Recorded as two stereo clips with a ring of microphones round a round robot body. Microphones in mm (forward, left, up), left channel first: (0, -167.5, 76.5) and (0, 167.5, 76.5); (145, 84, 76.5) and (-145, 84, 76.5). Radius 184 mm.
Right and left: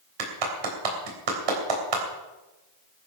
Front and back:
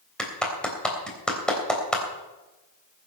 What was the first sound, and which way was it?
A clap, 85° left.